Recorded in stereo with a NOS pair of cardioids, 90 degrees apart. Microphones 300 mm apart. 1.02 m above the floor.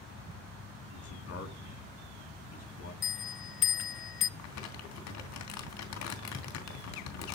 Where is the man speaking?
60° left, 10 m.